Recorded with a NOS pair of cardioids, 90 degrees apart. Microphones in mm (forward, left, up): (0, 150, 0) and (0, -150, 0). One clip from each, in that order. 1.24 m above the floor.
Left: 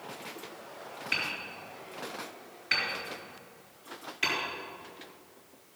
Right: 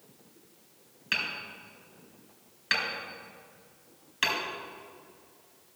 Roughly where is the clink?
I don't hear a clink.